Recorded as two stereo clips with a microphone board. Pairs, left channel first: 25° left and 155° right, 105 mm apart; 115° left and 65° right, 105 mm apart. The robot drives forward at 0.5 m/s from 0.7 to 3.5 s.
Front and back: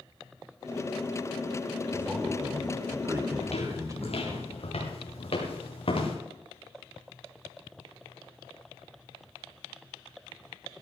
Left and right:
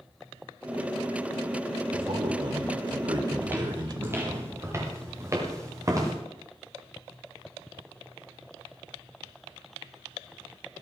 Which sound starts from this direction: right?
A man speaking, at 1.9 s.